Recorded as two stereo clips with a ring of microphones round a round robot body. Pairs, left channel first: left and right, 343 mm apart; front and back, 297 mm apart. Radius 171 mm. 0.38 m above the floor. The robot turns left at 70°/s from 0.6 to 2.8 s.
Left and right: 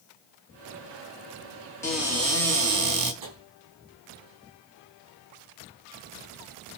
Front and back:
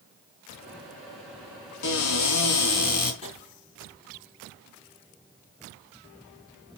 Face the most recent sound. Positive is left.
turn(degrees=-70)